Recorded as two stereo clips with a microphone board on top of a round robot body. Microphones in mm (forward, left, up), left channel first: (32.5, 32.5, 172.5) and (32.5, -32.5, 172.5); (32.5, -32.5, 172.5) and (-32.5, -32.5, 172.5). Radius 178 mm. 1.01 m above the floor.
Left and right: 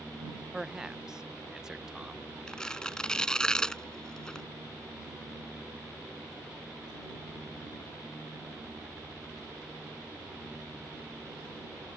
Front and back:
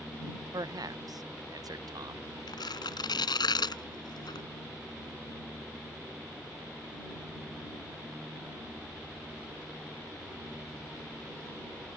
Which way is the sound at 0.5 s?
170° right.